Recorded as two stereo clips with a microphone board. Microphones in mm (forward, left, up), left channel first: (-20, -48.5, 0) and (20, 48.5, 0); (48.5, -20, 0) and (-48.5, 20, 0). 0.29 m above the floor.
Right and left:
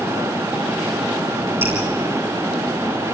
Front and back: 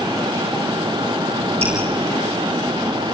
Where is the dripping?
135° left, 4 m.